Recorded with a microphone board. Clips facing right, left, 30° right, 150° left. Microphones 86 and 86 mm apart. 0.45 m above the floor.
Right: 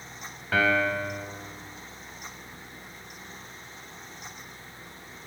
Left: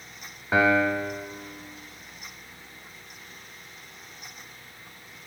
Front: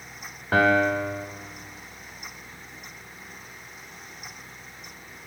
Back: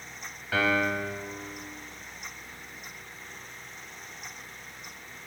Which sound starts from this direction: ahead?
A piano, at 0.5 s.